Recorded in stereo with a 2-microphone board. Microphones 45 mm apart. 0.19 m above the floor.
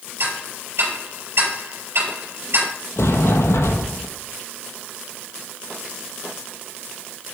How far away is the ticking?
About 4.5 m.